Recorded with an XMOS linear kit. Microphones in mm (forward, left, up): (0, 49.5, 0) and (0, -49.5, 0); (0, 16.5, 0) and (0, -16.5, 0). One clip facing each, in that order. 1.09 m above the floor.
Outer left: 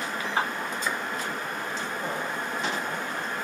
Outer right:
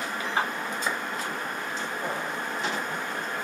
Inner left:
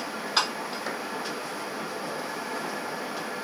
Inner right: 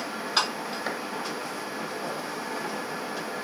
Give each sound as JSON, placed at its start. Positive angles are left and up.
{"t": 0.9, "sound": "a clap", "side_deg": -20, "distance_m": 2.5}